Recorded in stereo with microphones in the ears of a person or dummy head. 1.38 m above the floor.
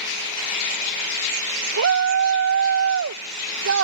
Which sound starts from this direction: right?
A shout, at 1.8 s.